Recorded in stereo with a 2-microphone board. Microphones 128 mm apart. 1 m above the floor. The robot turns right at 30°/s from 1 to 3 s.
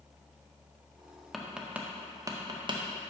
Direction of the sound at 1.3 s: Centre (ahead or behind).